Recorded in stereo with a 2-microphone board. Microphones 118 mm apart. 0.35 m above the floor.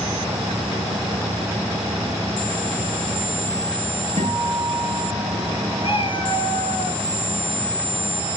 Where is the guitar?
70° right (ahead or behind), 6 m.